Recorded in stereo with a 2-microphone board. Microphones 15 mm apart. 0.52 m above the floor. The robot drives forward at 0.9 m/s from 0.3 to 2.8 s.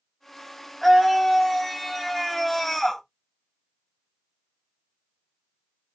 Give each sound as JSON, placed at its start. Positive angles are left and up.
{"t": 0.8, "sound": "a scream", "side_deg": 5, "distance_m": 2.5}